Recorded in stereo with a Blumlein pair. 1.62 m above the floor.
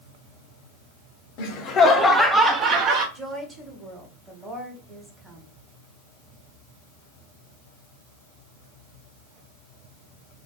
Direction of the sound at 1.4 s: 45° left.